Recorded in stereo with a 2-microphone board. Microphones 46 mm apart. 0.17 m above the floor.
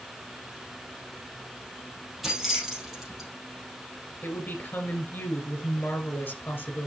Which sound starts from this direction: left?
A woman speaking, at 4.2 s.